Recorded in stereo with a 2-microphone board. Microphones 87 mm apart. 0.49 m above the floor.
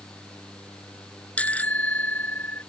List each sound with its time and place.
1.4 s a bicycle bell: 15° left (ahead or behind); by 2.6 s 20° left (ahead or behind)